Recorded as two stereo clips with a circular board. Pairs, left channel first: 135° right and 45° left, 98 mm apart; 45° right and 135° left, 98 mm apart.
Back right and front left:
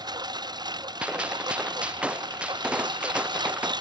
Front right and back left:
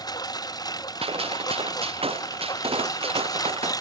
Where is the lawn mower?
Straight ahead; by 3.8 s 5° left.